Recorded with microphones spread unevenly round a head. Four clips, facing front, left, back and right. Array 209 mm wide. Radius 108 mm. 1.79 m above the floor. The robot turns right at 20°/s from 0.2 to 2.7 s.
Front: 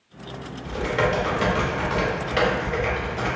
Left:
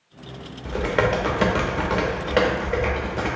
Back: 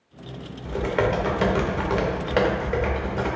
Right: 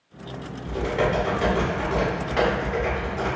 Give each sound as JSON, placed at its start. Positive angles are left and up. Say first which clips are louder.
{"t": 0.7, "sound": "typing on a keyboard", "louder": "left 2 dB, even", "azimuth_deg": 85, "distance_m": 0.5}